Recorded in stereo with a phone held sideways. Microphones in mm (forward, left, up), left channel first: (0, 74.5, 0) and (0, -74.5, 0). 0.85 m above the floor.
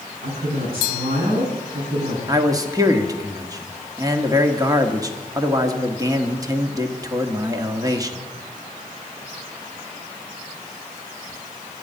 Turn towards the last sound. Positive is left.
turn(degrees=-25)  # may be behind; listen again after turning